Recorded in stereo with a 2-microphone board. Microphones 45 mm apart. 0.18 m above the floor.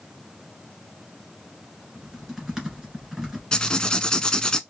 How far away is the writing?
About 0.6 m.